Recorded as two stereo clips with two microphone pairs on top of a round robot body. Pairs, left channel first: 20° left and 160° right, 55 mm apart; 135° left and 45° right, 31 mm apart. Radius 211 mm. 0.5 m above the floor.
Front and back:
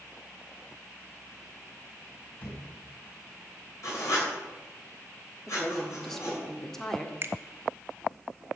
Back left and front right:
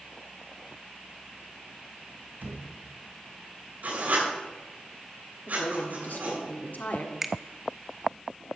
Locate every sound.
2.4 s a thud: 40° right, 2.5 m
3.8 s writing: 10° right, 6.5 m
5.5 s a woman speaking: 105° left, 1.7 m
7.2 s a finger snap: 115° right, 1.1 m